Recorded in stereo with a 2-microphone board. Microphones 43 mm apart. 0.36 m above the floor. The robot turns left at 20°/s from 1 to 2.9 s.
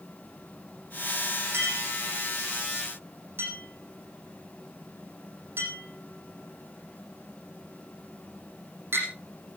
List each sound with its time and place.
1.5 s a clink: 85° right, 7.5 m; by 9.1 s 65° right (ahead or behind), 7.5 m